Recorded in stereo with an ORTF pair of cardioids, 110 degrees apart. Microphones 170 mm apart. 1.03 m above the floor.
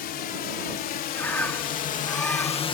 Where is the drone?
70° left; by 2.8 s 80° left.